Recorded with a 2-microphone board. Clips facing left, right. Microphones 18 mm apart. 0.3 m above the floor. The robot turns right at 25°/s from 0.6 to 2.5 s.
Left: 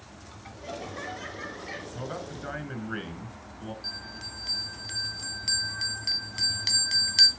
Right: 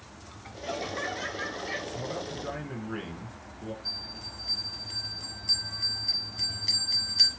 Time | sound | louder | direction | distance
0.6 | laughter | right 4 dB | 20° right (ahead or behind) | 0.9 m
1.9 | a man speaking | right 2 dB | 45° left (ahead or behind) | 3.5 m
3.8 | a bell | right 2 dB | 55° left (ahead or behind) | 2 m